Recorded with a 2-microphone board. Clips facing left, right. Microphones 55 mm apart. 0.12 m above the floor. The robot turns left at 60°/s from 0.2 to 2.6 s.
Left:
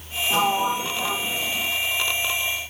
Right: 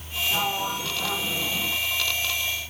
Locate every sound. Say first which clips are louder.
0.3 s a sliding door: left 7 dB; 60° left, 0.9 m; by 1.8 s 30° right, 0.9 m